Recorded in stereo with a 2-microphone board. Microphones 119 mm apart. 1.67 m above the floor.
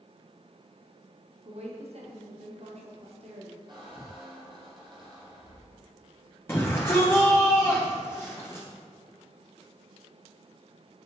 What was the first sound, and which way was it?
A woman speaking, 60° right (ahead or behind).